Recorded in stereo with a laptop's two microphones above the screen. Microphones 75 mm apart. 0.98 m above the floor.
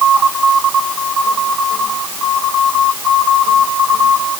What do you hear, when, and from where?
Only background noise.